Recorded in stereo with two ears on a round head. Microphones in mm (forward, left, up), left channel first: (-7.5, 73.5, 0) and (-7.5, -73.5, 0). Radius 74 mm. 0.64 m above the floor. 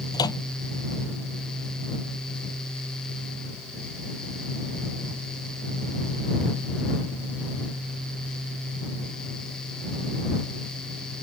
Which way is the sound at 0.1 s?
25° left (ahead or behind).